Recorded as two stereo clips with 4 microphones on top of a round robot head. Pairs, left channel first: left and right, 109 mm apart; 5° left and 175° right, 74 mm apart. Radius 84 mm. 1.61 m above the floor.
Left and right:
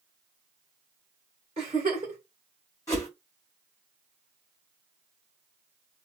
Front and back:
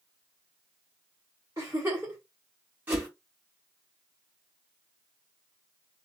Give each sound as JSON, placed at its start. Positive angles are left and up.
{"t": 1.6, "sound": "a giggle", "azimuth_deg": -115, "distance_m": 1.6}
{"t": 2.9, "sound": "a whoosh", "azimuth_deg": 145, "distance_m": 1.5}